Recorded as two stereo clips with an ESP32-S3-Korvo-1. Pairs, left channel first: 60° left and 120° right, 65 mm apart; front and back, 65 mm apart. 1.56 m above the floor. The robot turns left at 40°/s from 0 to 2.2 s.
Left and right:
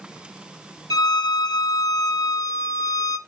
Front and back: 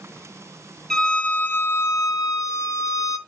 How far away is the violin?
About 0.8 m.